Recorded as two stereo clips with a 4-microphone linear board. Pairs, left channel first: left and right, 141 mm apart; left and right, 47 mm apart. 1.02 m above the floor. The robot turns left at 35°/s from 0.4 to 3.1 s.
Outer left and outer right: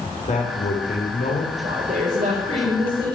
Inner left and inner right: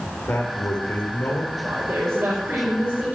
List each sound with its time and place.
0.3 s a man speaking: 120° left, 3 m; by 1.5 s 85° left, 3 m
1.6 s a woman speaking: 100° right, 4.5 m; by 3.1 s 150° right, 4.5 m